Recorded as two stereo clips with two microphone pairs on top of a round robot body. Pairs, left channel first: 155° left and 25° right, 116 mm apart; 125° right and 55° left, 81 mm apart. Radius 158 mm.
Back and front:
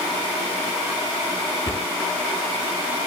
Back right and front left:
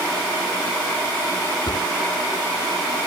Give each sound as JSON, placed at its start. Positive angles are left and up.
{"t": 1.7, "sound": "a cupboard door", "azimuth_deg": -140, "distance_m": 1.5}